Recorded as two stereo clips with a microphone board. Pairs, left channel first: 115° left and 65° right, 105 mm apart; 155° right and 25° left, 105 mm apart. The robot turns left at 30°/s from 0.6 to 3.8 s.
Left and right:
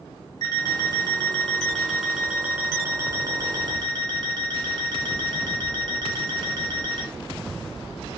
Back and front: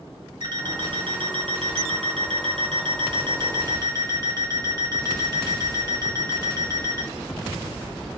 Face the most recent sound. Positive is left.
turn(degrees=-35)